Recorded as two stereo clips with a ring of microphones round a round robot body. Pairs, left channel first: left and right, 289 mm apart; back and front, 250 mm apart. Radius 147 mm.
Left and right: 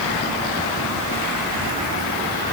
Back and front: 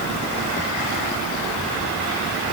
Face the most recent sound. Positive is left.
No sound to turn to.